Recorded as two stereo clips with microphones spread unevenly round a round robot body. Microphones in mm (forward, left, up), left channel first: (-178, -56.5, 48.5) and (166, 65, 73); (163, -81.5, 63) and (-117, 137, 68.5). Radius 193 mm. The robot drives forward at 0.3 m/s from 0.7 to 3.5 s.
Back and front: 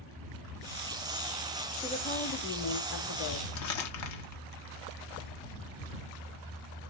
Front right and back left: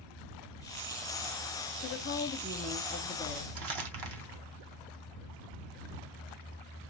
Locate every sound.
1.8 s a woman speaking: 90° right, 0.9 m; by 3.5 s 120° right, 1.0 m
3.5 s crumpling: 165° left, 1.2 m